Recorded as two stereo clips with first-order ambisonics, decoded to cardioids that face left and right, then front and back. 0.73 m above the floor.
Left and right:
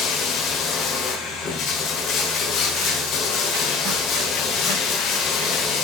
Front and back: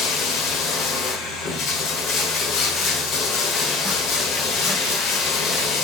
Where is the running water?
45° left, 1.7 m.